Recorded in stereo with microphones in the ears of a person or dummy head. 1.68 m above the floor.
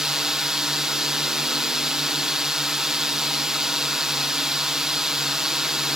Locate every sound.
0.0 s a drone: 5° right (ahead or behind)